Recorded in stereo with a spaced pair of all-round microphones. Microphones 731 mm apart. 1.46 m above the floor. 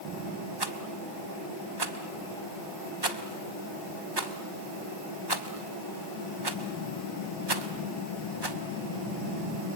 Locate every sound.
0.6 s a rattle: 35° right (ahead or behind), 1.1 m